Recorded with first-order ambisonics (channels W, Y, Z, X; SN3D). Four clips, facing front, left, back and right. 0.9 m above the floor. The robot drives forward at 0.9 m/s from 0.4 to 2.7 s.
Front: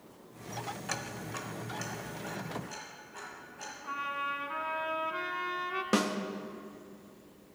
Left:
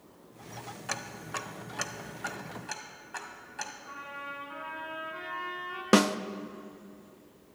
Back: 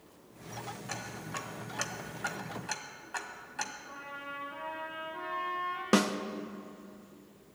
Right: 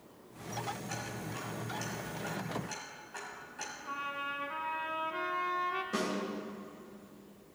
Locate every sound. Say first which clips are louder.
0.9 s ticking: left 4 dB, even; 65° left, 0.9 m; by 3.7 s 150° left, 1.6 m
3.8 s a trumpet: right 3 dB, front 8 dB; 20° right, 1.8 m
5.9 s a snare drum: left 16 dB, back 3 dB; 100° left, 0.6 m